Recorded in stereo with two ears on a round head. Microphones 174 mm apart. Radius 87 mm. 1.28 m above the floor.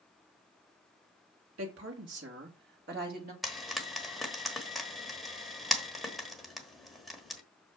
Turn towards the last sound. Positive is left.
turn(degrees=0)  # may be behind; listen again after turning